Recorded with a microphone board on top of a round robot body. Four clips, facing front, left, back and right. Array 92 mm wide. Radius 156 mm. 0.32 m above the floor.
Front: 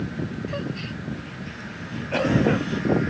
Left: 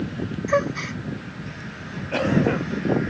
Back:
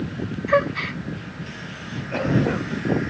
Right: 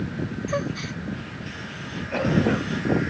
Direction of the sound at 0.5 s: 155° left.